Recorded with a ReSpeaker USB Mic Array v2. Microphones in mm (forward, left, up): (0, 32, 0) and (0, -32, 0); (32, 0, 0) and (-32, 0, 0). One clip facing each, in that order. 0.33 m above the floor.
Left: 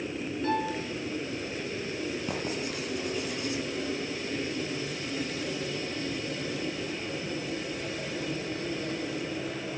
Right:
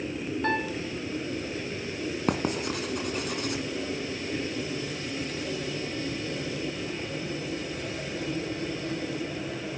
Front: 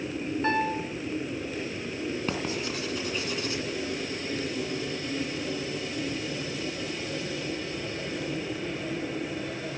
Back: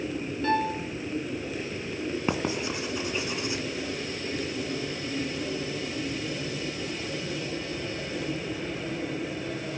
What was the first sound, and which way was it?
A piano, 55° right.